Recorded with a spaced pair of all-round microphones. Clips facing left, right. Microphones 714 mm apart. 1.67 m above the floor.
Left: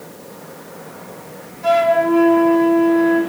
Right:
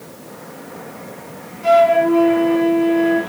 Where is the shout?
No shout in this recording.